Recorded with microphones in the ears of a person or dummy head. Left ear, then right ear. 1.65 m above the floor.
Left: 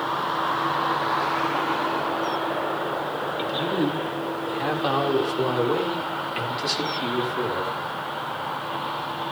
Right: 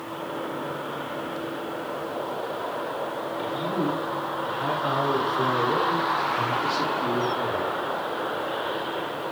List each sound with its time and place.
3.4 s a man speaking: 55° left (ahead or behind), 7.5 m; by 7.8 s 80° left, 5 m